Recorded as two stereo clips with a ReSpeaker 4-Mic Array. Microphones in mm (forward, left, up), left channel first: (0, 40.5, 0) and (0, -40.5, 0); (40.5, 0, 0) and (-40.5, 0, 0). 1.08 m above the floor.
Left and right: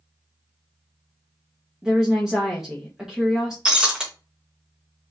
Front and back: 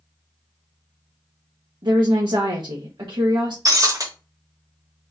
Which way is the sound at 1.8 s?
175° right.